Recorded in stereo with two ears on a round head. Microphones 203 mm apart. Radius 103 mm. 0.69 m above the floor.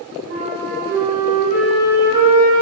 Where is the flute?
55° right (ahead or behind), 1.2 m.